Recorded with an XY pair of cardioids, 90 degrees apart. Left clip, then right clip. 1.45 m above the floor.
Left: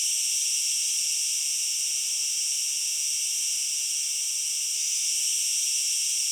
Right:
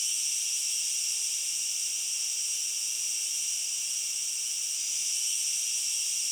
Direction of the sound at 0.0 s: 70° left.